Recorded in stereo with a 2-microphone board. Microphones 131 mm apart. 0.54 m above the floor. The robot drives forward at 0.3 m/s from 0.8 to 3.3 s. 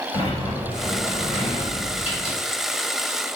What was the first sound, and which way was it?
A sliding door, 50° left (ahead or behind).